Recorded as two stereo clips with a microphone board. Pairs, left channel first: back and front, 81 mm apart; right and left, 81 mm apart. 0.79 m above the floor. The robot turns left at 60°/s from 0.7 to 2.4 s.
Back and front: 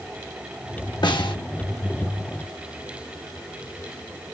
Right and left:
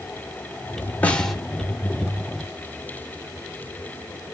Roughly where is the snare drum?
Behind.